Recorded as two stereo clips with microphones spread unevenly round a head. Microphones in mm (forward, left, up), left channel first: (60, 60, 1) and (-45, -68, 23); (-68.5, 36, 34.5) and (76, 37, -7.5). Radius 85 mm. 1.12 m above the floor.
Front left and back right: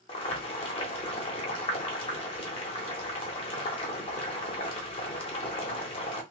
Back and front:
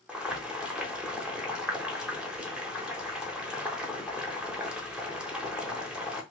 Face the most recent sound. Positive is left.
turn(degrees=100)